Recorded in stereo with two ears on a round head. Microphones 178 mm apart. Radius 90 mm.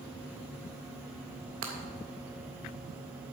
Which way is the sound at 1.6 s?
85° right.